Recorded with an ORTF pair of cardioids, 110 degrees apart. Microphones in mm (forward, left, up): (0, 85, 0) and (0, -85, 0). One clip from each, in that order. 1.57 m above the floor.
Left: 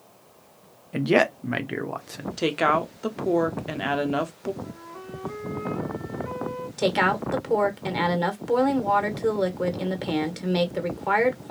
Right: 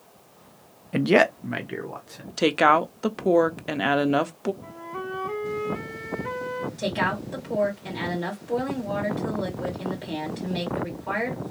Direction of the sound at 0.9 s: 20° right.